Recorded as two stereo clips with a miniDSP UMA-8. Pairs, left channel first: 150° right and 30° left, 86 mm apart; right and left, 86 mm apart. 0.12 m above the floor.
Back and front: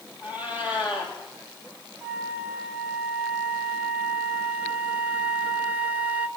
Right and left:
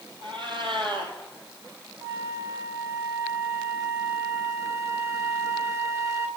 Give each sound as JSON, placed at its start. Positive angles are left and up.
{"t": 0.2, "sound": "a cat meowing", "azimuth_deg": 100, "distance_m": 2.0}
{"t": 2.0, "sound": "a flute", "azimuth_deg": 85, "distance_m": 0.7}